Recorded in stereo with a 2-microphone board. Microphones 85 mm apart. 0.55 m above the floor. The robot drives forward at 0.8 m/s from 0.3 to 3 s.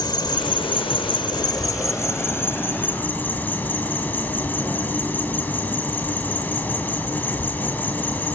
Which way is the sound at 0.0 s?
60° left (ahead or behind).